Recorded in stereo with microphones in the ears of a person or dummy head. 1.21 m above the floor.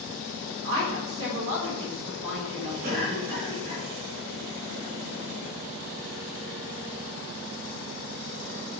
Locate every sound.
0.6 s a woman speaking: 30° right (ahead or behind), 3 m
2.8 s a cough: 40° right (ahead or behind), 3 m